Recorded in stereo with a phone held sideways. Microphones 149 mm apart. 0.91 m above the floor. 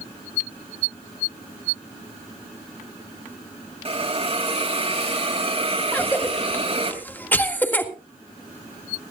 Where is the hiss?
45° right (ahead or behind), 3 m.